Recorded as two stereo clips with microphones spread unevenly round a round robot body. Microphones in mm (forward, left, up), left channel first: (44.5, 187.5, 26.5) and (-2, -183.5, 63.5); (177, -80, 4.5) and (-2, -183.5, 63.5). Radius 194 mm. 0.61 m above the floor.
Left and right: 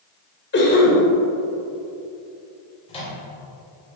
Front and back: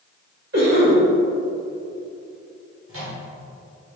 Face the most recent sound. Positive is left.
turn(degrees=155)